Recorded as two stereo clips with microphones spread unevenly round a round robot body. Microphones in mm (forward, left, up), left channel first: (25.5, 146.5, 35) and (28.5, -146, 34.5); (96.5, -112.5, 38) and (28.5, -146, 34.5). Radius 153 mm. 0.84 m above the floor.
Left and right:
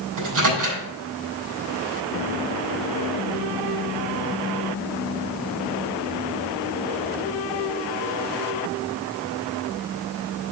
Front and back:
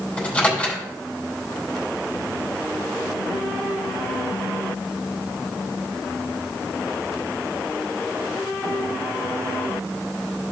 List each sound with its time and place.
0.2 s a microwave: 50° right, 4 m